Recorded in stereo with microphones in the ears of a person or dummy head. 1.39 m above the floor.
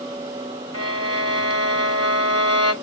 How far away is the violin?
About 1.9 m.